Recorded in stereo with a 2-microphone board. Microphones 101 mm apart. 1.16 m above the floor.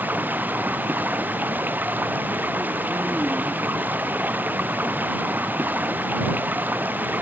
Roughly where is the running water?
Centre.